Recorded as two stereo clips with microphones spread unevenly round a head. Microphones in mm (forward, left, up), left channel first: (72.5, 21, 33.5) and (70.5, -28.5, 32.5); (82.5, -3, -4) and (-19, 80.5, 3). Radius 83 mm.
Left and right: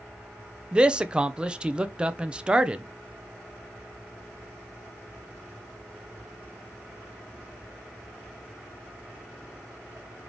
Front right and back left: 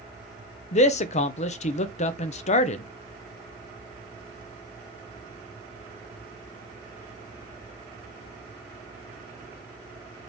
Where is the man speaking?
20° right, 0.5 m.